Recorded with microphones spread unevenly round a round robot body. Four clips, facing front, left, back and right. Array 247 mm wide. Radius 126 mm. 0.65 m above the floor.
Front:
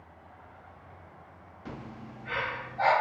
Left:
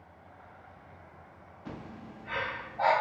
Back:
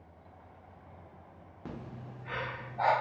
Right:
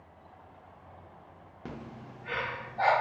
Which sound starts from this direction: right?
Breathing, at 1.6 s.